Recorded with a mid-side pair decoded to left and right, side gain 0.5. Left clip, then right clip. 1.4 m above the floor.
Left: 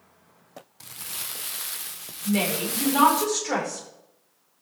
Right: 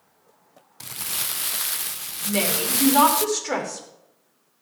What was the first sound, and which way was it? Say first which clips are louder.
Crumpling: right 7 dB; 45° right.